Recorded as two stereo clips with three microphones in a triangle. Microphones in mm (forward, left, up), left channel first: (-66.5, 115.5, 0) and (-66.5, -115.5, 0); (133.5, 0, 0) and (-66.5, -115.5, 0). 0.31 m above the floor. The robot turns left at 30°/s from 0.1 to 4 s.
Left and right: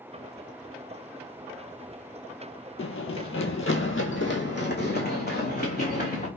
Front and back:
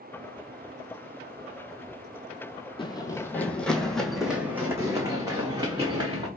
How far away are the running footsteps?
About 0.5 m.